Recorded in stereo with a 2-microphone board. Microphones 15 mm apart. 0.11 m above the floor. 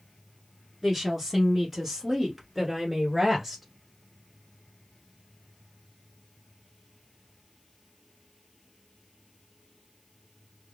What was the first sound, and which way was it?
A woman speaking, 10° right (ahead or behind).